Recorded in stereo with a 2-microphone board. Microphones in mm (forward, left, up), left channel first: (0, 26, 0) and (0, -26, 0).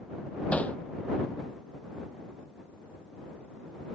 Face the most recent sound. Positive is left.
turn(degrees=25)  # may be behind; listen again after turning